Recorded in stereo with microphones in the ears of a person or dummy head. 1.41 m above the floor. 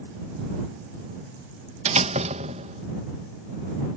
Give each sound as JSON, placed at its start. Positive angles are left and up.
{"t": 1.9, "sound": "a door slam", "side_deg": -40}